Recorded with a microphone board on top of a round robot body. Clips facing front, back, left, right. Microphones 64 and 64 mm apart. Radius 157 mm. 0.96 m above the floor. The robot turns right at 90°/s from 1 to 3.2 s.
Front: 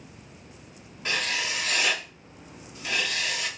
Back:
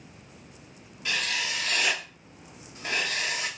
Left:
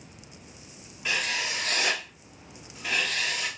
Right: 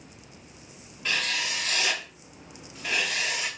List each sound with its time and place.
1.1 s writing: 15° left, 0.9 m; by 3.5 s 150° right, 0.9 m